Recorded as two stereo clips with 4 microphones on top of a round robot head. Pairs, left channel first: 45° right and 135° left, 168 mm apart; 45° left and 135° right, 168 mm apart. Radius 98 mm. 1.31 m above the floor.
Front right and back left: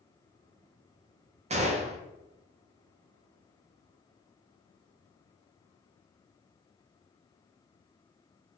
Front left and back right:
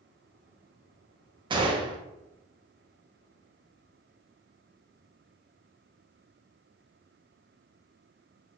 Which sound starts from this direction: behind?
A gunshot, at 1.5 s.